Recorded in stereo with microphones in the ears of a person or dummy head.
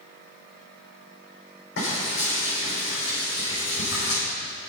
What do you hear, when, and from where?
1.8 s frying: 65° left (ahead or behind), 6 m